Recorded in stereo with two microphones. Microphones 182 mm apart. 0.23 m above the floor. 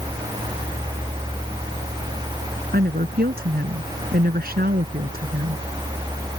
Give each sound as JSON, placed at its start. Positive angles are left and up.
{"t": 2.7, "sound": "a woman speaking", "side_deg": -60}